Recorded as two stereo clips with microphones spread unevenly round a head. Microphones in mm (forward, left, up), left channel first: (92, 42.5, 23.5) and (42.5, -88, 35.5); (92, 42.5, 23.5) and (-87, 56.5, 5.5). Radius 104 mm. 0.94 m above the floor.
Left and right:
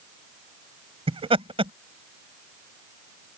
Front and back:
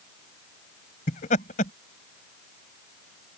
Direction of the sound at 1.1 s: 60° right.